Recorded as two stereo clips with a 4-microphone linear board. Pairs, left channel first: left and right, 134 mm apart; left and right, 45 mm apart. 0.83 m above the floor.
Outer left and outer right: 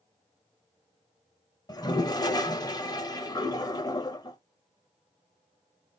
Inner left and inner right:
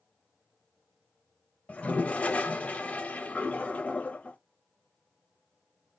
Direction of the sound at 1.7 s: 30° left (ahead or behind).